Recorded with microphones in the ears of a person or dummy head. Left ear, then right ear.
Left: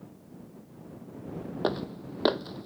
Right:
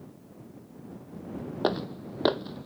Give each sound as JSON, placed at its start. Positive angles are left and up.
{"t": 1.6, "sound": "footsteps", "side_deg": -15}